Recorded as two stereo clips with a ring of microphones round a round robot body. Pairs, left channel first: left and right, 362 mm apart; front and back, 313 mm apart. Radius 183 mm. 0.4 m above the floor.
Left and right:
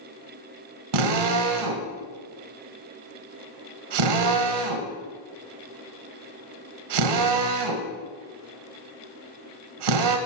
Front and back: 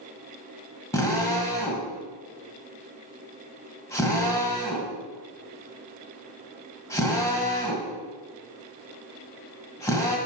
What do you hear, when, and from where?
0.9 s a drill: 80° right, 1.5 m